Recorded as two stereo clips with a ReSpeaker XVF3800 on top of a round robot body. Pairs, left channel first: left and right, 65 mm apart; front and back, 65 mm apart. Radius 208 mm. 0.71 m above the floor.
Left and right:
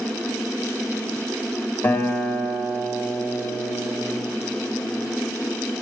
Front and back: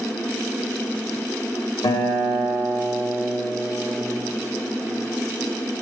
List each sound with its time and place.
1.8 s a guitar: 25° left, 1.1 m